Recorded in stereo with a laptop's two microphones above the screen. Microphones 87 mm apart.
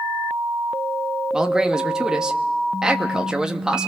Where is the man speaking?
10° right (ahead or behind), 1.5 m.